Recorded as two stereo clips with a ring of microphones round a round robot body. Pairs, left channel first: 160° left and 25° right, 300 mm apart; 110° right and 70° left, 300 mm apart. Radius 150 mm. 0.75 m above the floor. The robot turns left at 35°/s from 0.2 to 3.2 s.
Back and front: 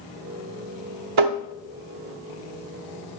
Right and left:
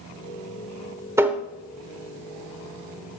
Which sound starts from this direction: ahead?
Tapping, at 1.2 s.